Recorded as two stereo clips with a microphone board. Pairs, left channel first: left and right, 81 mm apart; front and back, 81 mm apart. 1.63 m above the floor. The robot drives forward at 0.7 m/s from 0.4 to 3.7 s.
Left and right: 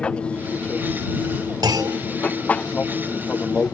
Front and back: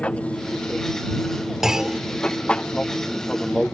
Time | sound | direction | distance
0.0 | an aircraft | 40° left | ?
1.6 | a clunk | 95° right | ?